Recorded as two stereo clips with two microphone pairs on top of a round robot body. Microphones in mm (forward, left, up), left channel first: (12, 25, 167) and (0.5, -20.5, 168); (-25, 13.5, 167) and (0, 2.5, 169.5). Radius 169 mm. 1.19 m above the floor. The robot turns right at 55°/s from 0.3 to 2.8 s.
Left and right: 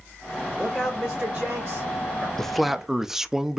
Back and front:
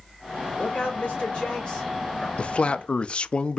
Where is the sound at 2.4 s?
155° left, 0.7 m; by 3.6 s 175° left, 0.7 m.